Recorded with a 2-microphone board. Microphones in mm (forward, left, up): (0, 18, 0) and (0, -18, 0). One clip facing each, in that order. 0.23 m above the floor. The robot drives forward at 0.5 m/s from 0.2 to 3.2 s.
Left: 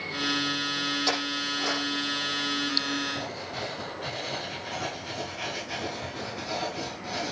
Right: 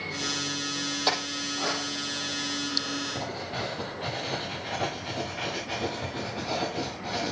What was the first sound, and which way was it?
A clink, 35° right (ahead or behind).